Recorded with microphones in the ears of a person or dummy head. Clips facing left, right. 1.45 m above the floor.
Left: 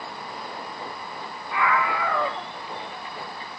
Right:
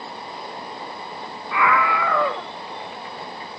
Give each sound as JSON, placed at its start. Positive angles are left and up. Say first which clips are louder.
{"t": 1.5, "sound": "a scream", "louder": "right 3 dB", "side_deg": -60}